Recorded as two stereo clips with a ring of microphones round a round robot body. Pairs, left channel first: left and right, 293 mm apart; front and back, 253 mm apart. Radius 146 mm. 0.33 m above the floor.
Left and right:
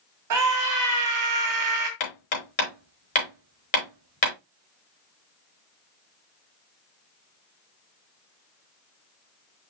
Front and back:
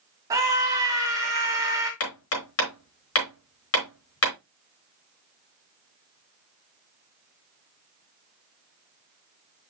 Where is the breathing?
No breathing in this recording.